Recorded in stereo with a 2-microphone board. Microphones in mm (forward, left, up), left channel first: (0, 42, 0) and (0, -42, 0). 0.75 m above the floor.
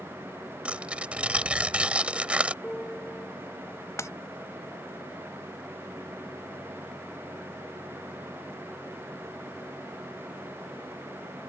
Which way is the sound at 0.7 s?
15° right (ahead or behind).